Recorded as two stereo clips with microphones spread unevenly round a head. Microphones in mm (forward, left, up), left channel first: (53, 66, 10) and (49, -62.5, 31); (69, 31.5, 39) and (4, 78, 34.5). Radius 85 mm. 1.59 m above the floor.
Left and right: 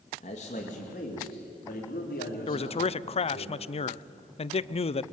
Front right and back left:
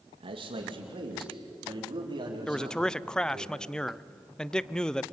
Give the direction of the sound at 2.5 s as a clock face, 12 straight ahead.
10 o'clock.